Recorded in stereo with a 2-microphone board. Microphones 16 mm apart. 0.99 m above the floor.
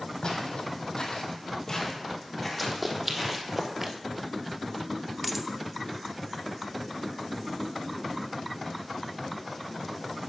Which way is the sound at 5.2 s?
5° right (ahead or behind).